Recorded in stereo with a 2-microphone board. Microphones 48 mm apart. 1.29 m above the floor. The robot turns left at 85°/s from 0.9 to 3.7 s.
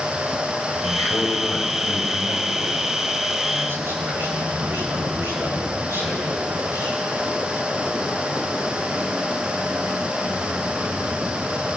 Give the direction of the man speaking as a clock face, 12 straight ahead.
8 o'clock.